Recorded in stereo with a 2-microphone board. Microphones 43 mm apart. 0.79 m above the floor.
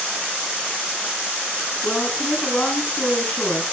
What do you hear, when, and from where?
1.8 s a woman speaking: 45° left (ahead or behind), 7.5 m